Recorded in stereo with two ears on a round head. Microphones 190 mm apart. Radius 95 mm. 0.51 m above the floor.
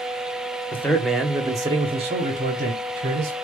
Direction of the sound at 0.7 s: 10° left (ahead or behind).